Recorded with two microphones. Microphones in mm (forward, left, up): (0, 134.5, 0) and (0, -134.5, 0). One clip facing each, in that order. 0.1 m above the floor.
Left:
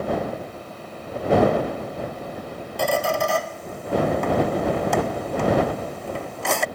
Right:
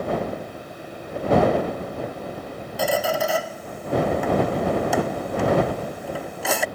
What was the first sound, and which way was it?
A squeak, 5° right (ahead or behind).